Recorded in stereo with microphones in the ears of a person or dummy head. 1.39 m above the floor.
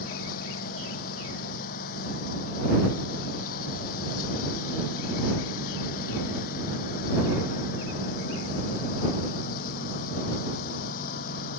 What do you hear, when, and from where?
0.0 s a lawn mower: 55° left (ahead or behind)